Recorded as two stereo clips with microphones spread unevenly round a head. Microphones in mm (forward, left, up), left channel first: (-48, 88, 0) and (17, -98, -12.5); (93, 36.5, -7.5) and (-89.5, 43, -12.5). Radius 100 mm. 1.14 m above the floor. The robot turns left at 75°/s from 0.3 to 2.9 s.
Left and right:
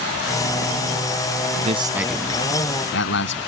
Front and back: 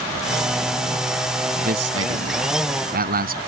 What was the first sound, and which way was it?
A man speaking, 120° right.